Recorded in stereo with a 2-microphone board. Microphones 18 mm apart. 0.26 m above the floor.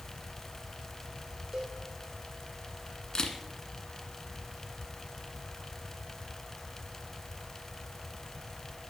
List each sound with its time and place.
1.5 s a cowbell: 15° right (ahead or behind), 3 m
3.1 s a camera shutter: 45° left (ahead or behind), 1.6 m